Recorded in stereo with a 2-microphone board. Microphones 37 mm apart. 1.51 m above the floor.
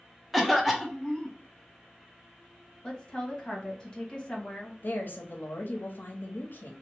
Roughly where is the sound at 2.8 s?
Left.